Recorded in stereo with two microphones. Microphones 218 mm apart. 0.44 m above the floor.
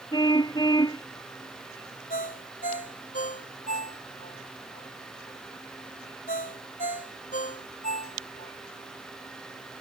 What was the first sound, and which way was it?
A car horn, 15° left (ahead or behind).